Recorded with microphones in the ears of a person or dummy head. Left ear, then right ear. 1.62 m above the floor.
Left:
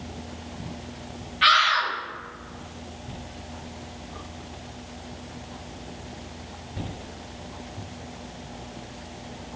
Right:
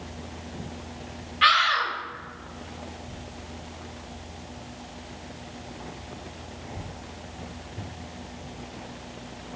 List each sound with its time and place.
1.4 s a scream: 15° right (ahead or behind), 3 m